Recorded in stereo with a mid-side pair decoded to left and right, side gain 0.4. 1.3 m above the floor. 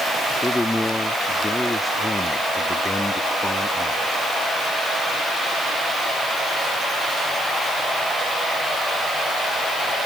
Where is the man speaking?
20° left.